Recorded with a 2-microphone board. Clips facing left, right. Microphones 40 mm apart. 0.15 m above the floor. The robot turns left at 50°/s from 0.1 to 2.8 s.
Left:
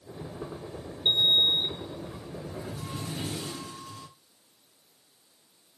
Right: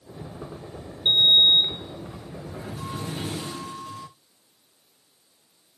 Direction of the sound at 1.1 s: 25° right.